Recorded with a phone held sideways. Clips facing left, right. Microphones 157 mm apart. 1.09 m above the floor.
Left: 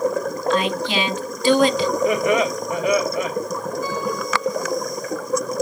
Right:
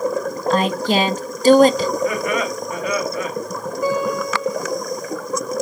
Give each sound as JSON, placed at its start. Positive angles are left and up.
{"t": 0.5, "sound": "a woman speaking", "side_deg": -40, "distance_m": 0.7}
{"t": 2.0, "sound": "laughter", "side_deg": 20, "distance_m": 1.8}
{"t": 3.8, "sound": "a guitar", "side_deg": -65, "distance_m": 4.5}